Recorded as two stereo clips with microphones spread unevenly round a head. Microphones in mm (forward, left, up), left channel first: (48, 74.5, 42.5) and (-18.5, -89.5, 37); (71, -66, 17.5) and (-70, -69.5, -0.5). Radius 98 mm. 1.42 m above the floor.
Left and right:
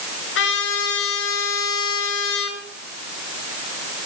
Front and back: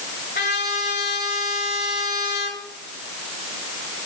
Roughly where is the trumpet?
Ahead left.